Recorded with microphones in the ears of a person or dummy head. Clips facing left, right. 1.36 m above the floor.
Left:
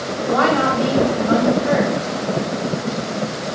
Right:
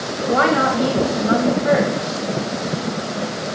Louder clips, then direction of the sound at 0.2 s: Even; 35° right (ahead or behind).